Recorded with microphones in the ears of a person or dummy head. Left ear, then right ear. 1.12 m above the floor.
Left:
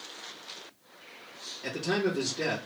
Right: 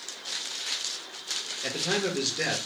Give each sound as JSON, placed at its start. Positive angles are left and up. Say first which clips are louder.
{"t": 1.6, "sound": "a man speaking", "louder": "even", "side_deg": -35, "distance_m": 1.4}